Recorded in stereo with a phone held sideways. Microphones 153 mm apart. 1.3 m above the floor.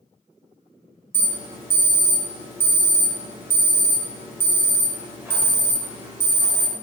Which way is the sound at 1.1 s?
15° right (ahead or behind).